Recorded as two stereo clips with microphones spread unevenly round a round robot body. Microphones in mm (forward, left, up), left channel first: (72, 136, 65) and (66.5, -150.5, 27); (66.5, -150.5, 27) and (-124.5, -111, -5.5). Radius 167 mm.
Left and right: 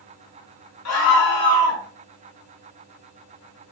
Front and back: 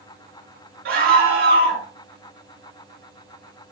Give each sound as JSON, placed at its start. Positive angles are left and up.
{"t": 0.8, "sound": "a scream", "azimuth_deg": 130, "distance_m": 4.5}